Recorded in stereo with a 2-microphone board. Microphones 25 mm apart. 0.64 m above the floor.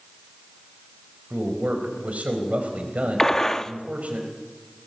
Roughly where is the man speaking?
Right.